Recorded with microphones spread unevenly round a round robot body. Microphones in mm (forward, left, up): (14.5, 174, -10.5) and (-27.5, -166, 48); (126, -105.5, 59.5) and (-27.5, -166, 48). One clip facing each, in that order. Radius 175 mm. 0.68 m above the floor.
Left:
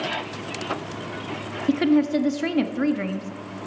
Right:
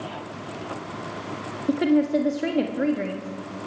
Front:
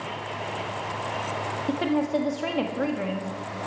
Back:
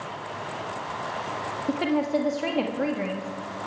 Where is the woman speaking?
120° left, 1.2 m.